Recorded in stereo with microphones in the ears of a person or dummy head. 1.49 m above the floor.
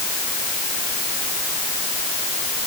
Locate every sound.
Only background noise.